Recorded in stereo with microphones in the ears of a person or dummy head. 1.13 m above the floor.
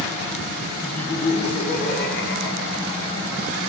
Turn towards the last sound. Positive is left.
turn(degrees=70)  # may be behind; listen again after turning